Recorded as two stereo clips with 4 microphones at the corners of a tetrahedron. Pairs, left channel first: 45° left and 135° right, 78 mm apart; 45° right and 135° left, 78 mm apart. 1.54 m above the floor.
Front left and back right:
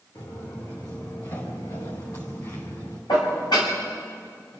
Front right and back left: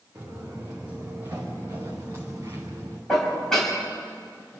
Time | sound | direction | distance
0.1 | footsteps | 65° left | 5.5 m
3.1 | dishes clattering | 35° left | 6.5 m